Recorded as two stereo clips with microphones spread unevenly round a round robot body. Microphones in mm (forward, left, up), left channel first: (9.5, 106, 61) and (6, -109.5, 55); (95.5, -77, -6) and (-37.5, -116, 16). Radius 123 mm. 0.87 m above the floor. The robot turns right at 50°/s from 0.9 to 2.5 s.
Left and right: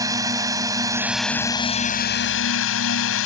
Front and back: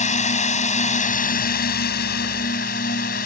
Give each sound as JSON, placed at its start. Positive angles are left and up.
{"t": 0.0, "sound": "a drone", "azimuth_deg": -15}